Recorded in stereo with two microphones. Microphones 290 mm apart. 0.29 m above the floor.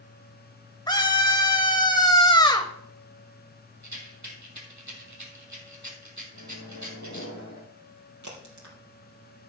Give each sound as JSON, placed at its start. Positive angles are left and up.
{"t": 0.9, "sound": "a scream", "side_deg": 15, "distance_m": 1.0}
{"t": 3.8, "sound": "a rattle", "side_deg": -75, "distance_m": 3.0}
{"t": 6.3, "sound": "a microwave", "side_deg": 75, "distance_m": 3.5}
{"t": 8.2, "sound": "a crack", "side_deg": -75, "distance_m": 4.0}